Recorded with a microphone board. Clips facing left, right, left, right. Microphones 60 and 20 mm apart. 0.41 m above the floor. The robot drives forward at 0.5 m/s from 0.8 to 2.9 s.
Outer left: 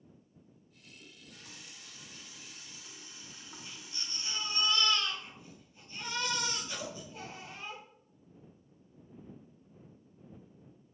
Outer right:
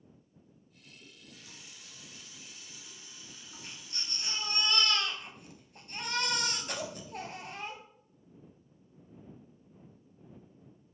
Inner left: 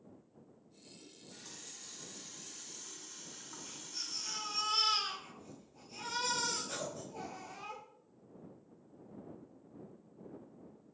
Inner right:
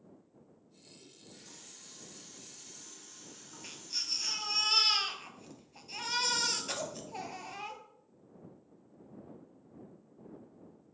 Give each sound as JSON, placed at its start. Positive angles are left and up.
{"t": 1.0, "sound": "a running tap", "side_deg": 65, "distance_m": 2.0}
{"t": 3.6, "sound": "a baby crying", "side_deg": -70, "distance_m": 1.9}